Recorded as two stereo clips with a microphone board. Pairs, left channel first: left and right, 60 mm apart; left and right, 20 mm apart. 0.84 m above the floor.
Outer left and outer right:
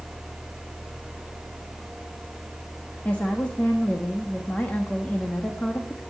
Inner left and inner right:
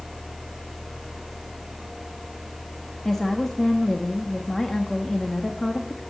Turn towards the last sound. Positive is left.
turn(degrees=25)  # may be behind; listen again after turning